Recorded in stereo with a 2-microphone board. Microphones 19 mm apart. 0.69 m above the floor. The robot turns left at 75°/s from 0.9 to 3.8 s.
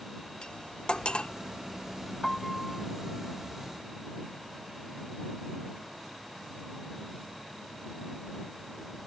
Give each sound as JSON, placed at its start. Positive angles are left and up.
{"t": 0.4, "sound": "cutlery clinking", "side_deg": 60}
{"t": 2.2, "sound": "a piano", "azimuth_deg": 30}